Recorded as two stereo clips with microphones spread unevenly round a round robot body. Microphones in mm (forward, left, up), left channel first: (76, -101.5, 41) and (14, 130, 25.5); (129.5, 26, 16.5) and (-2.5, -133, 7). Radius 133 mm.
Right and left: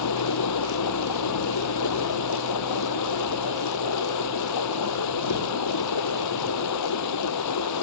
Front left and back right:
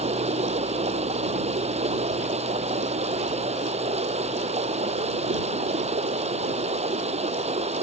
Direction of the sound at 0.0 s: 70° right.